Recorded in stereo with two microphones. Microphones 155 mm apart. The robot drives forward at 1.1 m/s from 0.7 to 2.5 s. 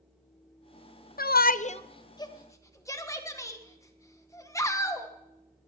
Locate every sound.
1.2 s a shout: 70° left (ahead or behind), 0.5 m; by 5.1 s 20° left (ahead or behind), 1.4 m